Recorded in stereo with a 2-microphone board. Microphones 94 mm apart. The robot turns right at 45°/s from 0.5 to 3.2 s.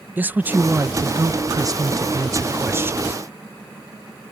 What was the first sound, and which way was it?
A man speaking, 150° right.